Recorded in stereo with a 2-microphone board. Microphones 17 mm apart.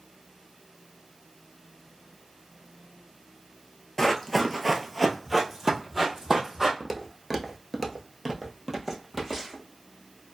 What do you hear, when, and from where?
4.0 s running footsteps: 25° left (ahead or behind), 0.7 m; by 6.7 s 25° right (ahead or behind), 1.4 m
6.8 s footsteps: 5° right (ahead or behind), 0.8 m